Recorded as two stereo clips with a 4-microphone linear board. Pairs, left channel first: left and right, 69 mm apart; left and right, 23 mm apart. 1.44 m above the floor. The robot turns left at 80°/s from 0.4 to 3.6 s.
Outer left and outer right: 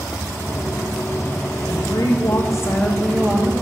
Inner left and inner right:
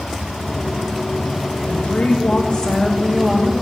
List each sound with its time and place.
1.7 s a woman speaking: 120° left, 1.8 m; by 3.5 s 30° right, 1.8 m